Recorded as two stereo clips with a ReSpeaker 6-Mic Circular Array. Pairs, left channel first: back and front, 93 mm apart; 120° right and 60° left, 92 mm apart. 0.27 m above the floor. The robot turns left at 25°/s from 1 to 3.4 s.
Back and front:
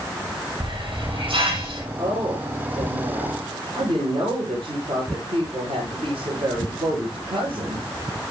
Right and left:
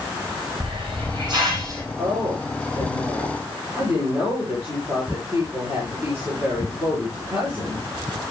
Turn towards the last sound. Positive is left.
turn(degrees=-5)